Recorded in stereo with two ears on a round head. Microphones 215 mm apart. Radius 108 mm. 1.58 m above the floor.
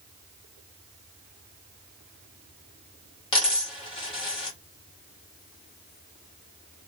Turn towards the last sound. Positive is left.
turn(degrees=20)  # may be behind; listen again after turning